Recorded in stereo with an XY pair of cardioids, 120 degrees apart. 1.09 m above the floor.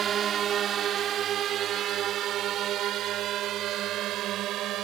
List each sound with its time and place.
0.0 s a drone: 50° right; by 4.8 s 70° right